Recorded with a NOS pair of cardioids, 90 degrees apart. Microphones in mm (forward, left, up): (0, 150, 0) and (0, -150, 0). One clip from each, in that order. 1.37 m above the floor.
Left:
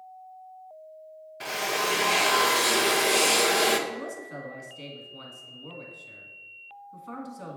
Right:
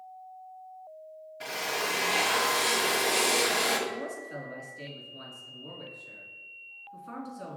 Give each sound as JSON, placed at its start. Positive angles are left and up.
{"t": 1.4, "sound": "a drill", "azimuth_deg": 25, "distance_m": 0.8}
{"t": 3.9, "sound": "a man speaking", "azimuth_deg": 20, "distance_m": 2.0}